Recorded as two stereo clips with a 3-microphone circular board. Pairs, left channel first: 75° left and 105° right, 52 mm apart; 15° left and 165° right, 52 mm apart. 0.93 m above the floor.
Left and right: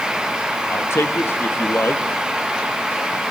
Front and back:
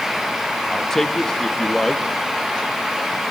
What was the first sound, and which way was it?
A man speaking, 95° left.